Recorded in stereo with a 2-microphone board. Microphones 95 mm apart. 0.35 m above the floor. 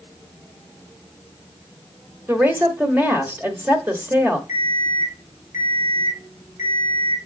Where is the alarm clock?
30° right (ahead or behind), 4 m.